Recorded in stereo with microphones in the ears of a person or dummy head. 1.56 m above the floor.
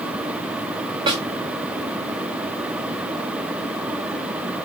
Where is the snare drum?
30° right (ahead or behind), 1.4 m.